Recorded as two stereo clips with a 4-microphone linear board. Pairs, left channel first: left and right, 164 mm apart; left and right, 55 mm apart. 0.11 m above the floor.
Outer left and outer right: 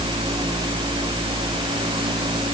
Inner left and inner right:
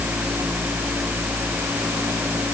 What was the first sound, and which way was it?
Only background noise.